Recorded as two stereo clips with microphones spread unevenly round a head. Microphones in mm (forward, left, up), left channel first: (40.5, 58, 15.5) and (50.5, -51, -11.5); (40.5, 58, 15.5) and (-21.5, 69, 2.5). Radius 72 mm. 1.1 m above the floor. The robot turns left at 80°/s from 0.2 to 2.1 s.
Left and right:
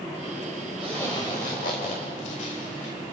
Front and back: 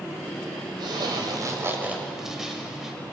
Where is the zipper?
170° right, 5 m; by 3.0 s 85° left, 5 m.